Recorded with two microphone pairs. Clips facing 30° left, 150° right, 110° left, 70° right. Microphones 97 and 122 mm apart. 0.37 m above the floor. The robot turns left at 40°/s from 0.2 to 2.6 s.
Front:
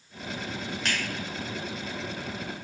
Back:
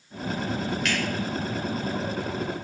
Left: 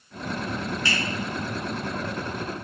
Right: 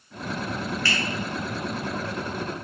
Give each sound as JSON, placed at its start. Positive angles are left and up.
{"t": 0.8, "sound": "a finger snap", "azimuth_deg": 55, "distance_m": 0.9}